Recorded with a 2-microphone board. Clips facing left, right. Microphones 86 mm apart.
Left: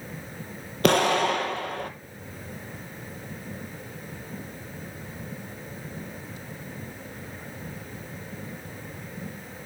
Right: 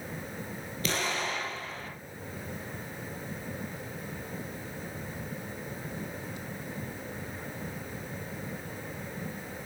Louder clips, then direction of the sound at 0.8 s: Left 12 dB; 60° left (ahead or behind).